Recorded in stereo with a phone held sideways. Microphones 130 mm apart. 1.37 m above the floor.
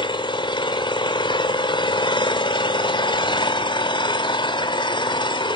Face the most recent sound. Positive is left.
turn(degrees=35)  # may be behind; listen again after turning